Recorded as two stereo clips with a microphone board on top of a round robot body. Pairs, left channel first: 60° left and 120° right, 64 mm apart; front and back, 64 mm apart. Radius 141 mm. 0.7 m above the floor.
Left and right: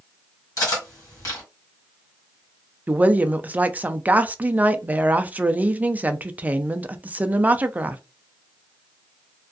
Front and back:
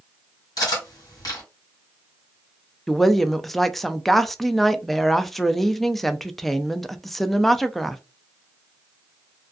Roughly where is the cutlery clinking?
Ahead left.